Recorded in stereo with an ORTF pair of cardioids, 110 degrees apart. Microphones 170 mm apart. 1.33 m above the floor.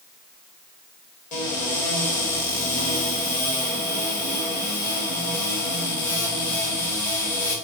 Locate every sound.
1.3 s a cupboard door: 50° left, 1.3 m